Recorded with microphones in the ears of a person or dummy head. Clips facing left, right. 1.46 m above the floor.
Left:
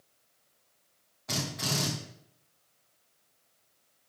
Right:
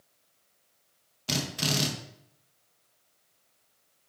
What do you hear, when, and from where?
1.3 s a drill: 45° right (ahead or behind), 2.0 m